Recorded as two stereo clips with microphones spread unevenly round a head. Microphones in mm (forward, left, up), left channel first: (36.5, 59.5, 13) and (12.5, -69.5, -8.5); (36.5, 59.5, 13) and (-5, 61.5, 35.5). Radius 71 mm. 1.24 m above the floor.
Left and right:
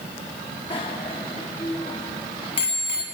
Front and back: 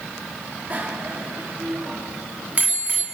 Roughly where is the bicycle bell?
Behind left.